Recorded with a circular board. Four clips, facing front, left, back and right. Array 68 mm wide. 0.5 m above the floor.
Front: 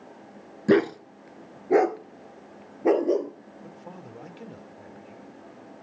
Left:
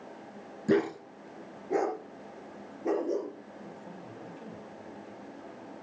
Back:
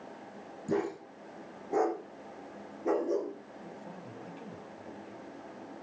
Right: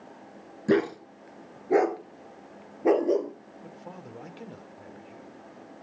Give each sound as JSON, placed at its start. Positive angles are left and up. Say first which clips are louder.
{"t": 0.7, "sound": "a dog barking", "louder": "right 3 dB, front 12 dB", "azimuth_deg": -15, "distance_m": 1.5}
{"t": 3.6, "sound": "a man speaking", "louder": "right 4 dB, front 4 dB", "azimuth_deg": -55, "distance_m": 1.6}